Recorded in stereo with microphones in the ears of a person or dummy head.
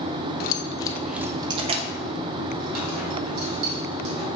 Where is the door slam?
I don't hear a door slam.